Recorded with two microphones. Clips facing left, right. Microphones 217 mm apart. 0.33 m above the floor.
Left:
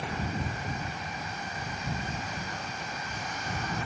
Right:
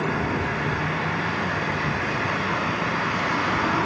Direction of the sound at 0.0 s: 85° right.